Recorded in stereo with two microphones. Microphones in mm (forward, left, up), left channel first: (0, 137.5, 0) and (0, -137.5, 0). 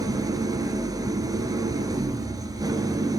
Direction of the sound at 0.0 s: 10° right (ahead or behind).